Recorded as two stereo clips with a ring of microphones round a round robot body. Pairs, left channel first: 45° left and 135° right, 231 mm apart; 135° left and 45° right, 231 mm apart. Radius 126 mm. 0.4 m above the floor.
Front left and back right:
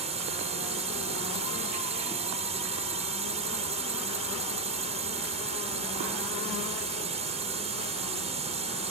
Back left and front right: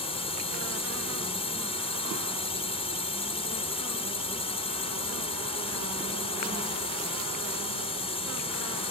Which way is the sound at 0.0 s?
175° right.